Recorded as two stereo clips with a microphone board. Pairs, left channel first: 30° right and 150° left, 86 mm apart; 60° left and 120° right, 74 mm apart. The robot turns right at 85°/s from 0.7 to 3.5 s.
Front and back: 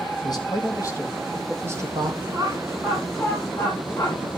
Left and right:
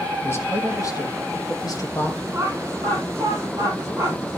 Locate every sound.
0.2 s a man speaking: 5° left, 3 m; by 2.2 s 135° left, 3 m
2.3 s laughter: 170° right, 9 m; by 4.2 s 70° right, 9 m